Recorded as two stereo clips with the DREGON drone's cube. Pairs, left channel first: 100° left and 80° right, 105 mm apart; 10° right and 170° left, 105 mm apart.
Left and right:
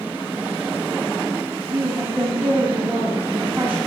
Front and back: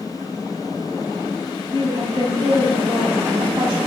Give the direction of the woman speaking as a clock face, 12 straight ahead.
5 o'clock.